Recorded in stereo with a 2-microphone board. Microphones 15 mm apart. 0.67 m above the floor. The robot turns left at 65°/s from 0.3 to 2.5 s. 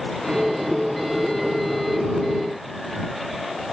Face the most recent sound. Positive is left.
No sound to turn to.